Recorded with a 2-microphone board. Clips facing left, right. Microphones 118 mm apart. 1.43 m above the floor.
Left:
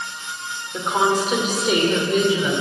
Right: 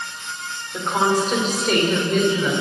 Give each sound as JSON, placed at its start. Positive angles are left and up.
{"t": 0.7, "sound": "a woman speaking", "side_deg": 5, "distance_m": 5.5}